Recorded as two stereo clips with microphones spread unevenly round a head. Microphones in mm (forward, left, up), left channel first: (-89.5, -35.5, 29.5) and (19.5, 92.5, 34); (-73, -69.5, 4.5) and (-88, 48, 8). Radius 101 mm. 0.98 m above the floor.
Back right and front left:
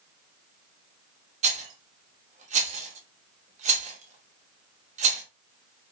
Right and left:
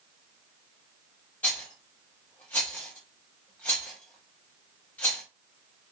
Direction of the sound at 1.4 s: Straight ahead.